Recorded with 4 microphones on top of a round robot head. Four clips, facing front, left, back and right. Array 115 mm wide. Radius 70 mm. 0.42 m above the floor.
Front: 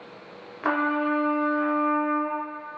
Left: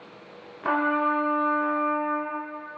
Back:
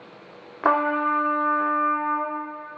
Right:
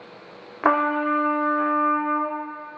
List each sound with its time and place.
0.6 s a trumpet: 125° right, 0.8 m